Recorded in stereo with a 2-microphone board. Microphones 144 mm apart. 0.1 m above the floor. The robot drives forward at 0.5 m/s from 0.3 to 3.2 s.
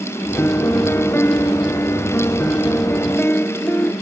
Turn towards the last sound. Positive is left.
turn(degrees=15)  # may be behind; listen again after turning